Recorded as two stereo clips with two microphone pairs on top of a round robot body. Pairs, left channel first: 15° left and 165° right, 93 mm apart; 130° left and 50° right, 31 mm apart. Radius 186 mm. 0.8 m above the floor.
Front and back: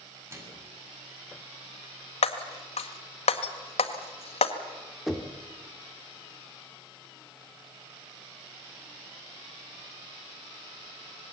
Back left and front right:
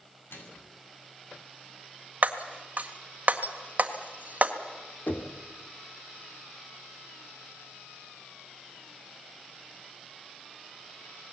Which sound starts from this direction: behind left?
A microwave, at 0.3 s.